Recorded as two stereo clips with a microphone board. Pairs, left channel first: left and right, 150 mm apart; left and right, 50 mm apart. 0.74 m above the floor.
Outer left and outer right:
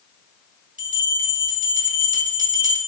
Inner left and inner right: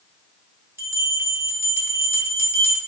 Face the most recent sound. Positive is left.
turn(degrees=-60)  # may be behind; listen again after turning